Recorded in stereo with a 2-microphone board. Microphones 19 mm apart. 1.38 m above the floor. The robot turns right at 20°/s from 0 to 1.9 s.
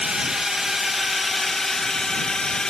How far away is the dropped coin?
I don't hear a dropped coin.